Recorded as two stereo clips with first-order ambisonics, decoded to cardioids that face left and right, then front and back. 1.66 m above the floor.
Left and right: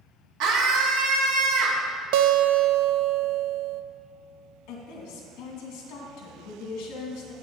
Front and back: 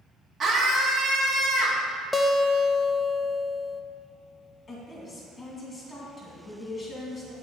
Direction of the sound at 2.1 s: 85° right.